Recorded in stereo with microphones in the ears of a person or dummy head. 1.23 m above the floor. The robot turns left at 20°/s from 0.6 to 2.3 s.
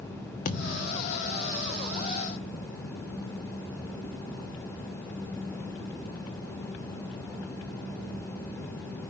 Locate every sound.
0.5 s a thud: 50° left (ahead or behind), 0.9 m; by 1.2 s 55° left (ahead or behind), 0.9 m